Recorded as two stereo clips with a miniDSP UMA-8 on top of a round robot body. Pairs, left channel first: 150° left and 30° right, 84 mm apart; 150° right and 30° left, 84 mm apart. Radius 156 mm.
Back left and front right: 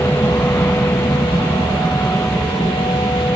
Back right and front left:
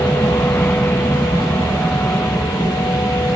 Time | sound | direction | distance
0.0 | an aircraft | 165° left | ?